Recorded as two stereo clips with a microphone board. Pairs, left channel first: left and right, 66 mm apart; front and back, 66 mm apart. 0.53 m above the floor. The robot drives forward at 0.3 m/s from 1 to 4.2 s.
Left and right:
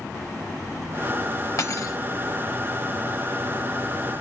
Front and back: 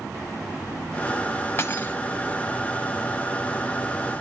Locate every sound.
1.6 s cutlery clinking: 50° left, 1.5 m; by 2.0 s 55° left, 1.4 m